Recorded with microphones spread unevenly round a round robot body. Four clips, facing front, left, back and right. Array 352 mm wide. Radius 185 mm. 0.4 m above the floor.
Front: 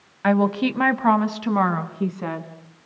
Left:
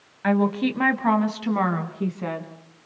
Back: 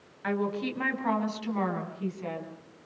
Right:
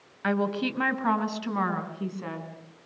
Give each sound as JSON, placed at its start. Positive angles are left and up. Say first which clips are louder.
{"t": 0.2, "sound": "a woman speaking", "louder": "left 5 dB, front 10 dB", "azimuth_deg": 15, "distance_m": 2.5}